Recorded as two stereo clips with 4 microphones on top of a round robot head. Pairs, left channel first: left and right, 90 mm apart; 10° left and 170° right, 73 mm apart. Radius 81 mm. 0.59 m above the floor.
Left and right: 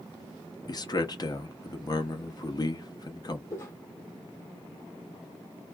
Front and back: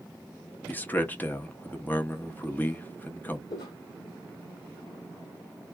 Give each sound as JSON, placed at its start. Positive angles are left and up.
{"t": 0.7, "sound": "a man speaking", "azimuth_deg": 70, "distance_m": 0.8}
{"t": 3.5, "sound": "footsteps", "azimuth_deg": 30, "distance_m": 1.3}